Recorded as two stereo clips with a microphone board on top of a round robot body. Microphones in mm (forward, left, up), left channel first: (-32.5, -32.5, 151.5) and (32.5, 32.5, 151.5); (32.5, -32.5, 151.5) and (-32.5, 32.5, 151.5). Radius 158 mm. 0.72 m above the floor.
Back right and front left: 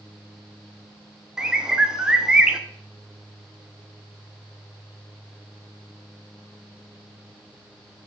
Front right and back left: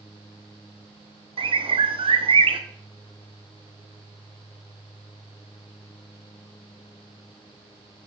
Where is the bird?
125° left, 0.9 m.